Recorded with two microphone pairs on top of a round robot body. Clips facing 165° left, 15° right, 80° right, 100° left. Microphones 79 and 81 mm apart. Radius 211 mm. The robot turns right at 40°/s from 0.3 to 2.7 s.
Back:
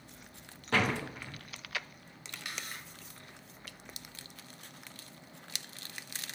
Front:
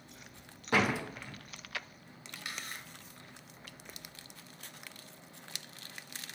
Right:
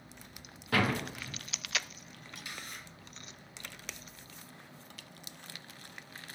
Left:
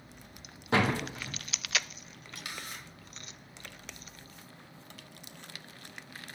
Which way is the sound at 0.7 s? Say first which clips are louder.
Front 1 dB, left 3 dB; 65° left.